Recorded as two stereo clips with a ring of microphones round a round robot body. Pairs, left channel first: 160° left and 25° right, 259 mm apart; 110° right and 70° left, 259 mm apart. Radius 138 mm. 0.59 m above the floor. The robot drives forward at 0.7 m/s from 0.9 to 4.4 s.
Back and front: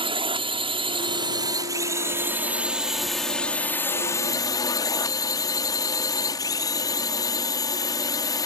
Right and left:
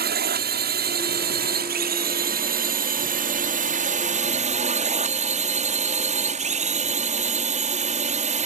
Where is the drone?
40° left; by 8.5 s 95° left.